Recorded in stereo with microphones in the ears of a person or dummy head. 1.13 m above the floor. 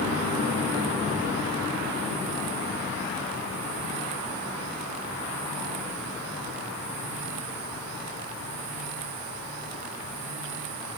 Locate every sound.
Only background noise.